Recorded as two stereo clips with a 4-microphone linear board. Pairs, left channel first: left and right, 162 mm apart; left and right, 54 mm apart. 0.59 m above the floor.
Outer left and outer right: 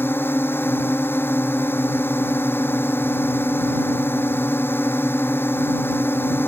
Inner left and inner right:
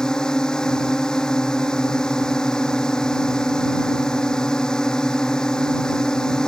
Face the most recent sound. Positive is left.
turn(degrees=15)  # may be behind; listen again after turning